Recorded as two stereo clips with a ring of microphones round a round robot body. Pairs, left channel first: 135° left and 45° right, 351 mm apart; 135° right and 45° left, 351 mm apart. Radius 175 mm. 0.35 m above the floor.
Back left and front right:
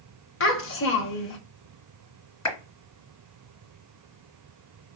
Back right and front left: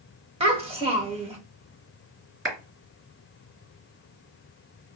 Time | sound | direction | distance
0.4 | a child speaking | 110° left | 0.7 m
2.5 | a clap | 100° left | 2.5 m